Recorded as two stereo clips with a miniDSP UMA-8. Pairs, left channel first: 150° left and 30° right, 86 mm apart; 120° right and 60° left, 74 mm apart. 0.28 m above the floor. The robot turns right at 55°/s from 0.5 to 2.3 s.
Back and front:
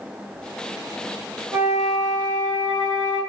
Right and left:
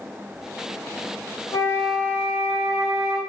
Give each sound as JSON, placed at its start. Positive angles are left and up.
{"t": 1.5, "sound": "a flute", "azimuth_deg": -95, "distance_m": 1.3}